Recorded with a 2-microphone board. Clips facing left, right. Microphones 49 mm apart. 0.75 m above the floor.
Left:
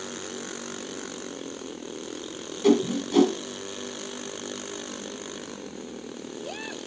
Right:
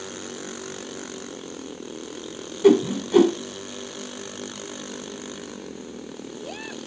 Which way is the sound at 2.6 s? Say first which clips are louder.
Right 4 dB; 20° right (ahead or behind).